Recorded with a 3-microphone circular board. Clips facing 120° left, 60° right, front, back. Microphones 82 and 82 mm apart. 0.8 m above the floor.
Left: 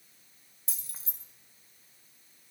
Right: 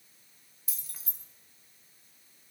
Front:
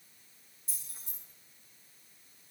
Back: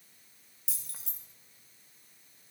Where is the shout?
No shout in this recording.